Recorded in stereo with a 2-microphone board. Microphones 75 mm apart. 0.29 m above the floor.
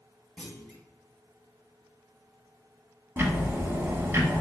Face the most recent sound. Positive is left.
turn(degrees=-30)  # may be behind; listen again after turning